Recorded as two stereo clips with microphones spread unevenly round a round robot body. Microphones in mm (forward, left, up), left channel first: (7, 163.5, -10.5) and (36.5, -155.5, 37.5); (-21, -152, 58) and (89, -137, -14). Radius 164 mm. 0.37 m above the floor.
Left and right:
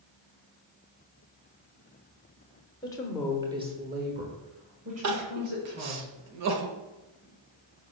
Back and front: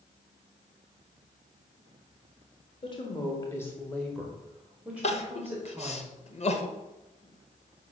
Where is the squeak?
No squeak in this recording.